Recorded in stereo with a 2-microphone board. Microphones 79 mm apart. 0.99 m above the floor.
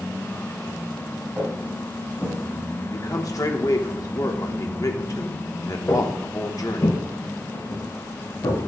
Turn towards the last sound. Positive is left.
turn(degrees=75)  # may be behind; listen again after turning